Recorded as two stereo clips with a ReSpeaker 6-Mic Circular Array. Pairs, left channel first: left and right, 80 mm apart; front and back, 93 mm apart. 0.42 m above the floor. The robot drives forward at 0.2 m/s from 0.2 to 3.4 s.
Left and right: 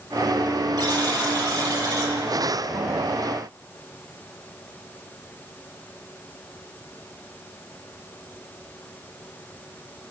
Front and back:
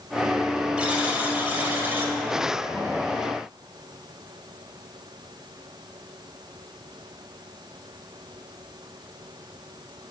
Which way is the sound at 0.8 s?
105° right.